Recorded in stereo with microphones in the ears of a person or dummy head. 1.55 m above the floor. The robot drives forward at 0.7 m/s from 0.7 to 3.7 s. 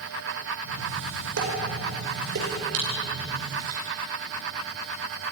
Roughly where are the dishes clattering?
Right.